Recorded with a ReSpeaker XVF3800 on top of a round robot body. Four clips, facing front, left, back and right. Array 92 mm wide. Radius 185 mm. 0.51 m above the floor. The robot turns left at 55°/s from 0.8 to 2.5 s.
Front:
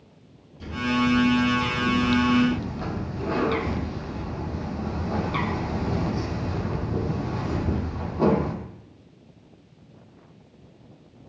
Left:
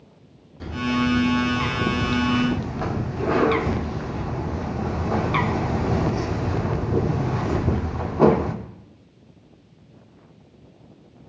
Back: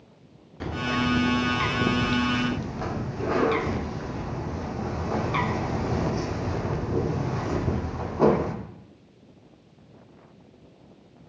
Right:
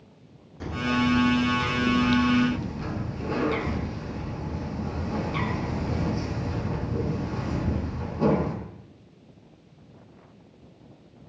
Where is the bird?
165° right, 1.1 m; by 8.6 s 100° left, 1.1 m.